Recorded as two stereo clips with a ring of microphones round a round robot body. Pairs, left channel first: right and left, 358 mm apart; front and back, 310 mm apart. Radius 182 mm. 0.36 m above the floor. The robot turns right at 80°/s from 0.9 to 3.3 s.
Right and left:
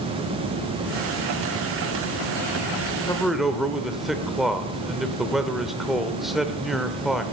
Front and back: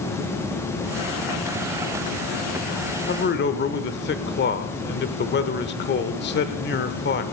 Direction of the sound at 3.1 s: 15° right.